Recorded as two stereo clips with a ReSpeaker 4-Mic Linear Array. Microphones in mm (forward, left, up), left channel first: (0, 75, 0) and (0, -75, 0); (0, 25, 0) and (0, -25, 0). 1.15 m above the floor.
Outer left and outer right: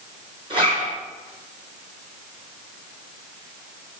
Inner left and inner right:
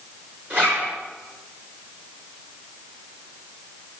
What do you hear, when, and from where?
0.5 s a zipper: 35° right (ahead or behind), 4 m